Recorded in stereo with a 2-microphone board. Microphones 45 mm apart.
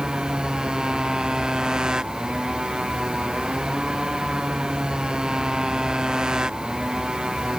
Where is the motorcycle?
15° right (ahead or behind).